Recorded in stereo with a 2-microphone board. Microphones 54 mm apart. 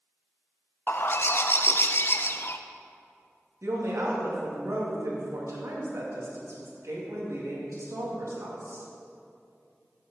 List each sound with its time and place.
0.9 s a bird: 50° left (ahead or behind), 0.5 m
3.6 s a woman speaking: 70° right (ahead or behind), 2.5 m